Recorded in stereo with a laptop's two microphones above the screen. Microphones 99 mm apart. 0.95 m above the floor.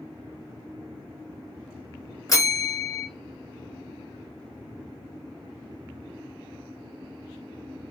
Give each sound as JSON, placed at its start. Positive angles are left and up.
{"t": 2.3, "sound": "a bell", "side_deg": 35, "distance_m": 0.8}